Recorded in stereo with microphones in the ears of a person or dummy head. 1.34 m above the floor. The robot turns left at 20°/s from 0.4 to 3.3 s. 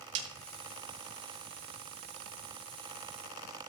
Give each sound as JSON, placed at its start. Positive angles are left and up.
{"t": 0.1, "sound": "a snare drum", "side_deg": -35, "distance_m": 2.5}